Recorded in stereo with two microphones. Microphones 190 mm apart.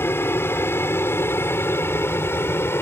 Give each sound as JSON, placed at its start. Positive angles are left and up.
{"t": 0.0, "sound": "an aircraft", "side_deg": 10}